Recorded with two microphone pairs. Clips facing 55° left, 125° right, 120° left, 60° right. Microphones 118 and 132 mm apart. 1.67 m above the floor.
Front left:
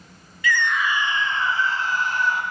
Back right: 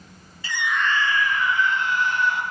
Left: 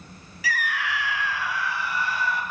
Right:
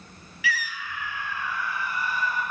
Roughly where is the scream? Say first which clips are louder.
Front left 2 dB, left 4 dB; behind.